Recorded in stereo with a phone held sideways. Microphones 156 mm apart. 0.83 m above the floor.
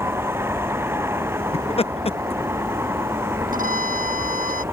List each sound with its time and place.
0.0 s a vehicle: 15° right (ahead or behind)
1.5 s laughter: 40° left (ahead or behind)
3.5 s a violin: 60° right (ahead or behind)